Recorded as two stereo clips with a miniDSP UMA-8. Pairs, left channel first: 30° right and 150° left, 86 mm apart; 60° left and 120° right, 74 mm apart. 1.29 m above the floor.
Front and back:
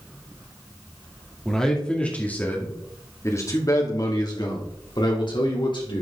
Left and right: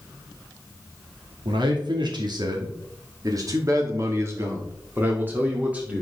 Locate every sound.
1.4 s a man speaking: 115° right, 2 m; by 6.0 s 50° right, 3 m